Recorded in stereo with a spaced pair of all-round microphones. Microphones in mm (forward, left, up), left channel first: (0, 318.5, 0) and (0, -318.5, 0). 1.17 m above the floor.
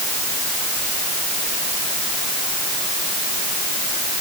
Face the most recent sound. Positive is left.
No sound to turn to.